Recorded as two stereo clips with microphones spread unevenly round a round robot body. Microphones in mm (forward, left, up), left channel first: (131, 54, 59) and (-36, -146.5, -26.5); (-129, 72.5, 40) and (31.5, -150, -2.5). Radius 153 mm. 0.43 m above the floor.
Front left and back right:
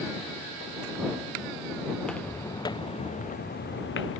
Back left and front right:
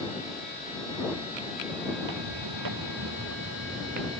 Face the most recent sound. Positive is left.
turn(degrees=15)